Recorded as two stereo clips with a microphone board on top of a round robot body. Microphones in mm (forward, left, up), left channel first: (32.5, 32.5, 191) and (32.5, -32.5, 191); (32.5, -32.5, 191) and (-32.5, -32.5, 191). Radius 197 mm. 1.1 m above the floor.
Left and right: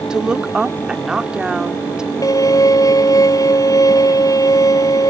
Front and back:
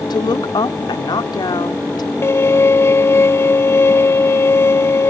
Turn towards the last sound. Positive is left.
turn(degrees=55)